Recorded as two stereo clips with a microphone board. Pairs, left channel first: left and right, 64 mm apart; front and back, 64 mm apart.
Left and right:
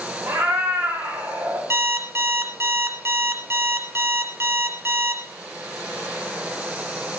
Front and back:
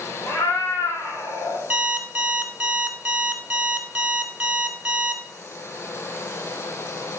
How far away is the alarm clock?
About 1.2 m.